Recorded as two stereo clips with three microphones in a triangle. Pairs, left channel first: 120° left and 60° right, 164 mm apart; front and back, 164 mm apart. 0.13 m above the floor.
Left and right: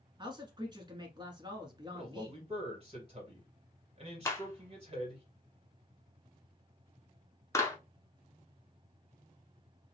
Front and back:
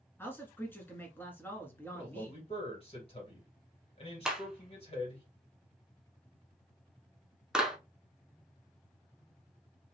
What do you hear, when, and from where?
0.2 s a man speaking: 60° right, 1.2 m
1.9 s a man speaking: 30° right, 2.5 m
4.2 s a clap: 105° left, 0.9 m